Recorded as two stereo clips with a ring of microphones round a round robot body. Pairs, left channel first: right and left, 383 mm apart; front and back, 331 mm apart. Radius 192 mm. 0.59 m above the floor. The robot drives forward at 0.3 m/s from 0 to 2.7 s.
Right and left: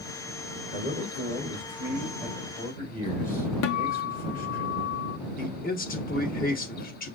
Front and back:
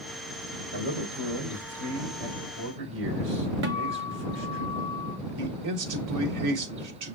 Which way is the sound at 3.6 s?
130° right.